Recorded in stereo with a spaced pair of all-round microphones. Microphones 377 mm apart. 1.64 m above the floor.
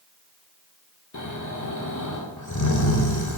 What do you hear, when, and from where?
1.1 s snoring: 50° left (ahead or behind), 1.1 m